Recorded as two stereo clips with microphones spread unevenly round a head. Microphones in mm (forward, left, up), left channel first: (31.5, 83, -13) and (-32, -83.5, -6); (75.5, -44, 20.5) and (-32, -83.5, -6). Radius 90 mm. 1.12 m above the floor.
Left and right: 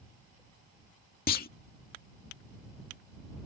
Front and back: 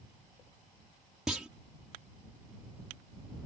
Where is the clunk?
110° left.